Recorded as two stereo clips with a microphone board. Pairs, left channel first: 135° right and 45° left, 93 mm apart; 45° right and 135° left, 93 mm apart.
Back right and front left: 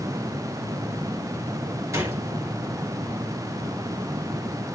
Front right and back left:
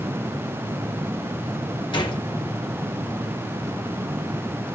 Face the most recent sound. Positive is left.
turn(degrees=-15)